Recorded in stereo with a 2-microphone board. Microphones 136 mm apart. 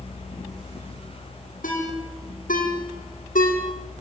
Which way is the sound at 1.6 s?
80° left.